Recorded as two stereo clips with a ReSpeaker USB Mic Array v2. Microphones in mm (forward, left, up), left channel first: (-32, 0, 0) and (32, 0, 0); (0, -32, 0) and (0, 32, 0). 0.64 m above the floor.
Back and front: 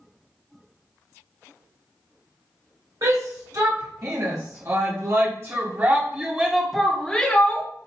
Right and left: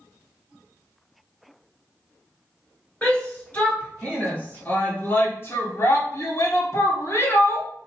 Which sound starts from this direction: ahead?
A shout, at 3.0 s.